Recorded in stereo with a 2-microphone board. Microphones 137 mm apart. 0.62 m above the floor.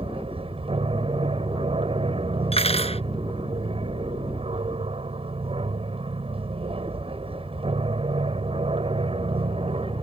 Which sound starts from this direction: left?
Cutlery clinking, at 2.5 s.